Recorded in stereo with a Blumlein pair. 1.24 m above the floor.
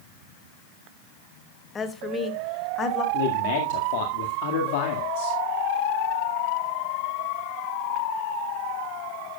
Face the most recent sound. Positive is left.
turn(degrees=50)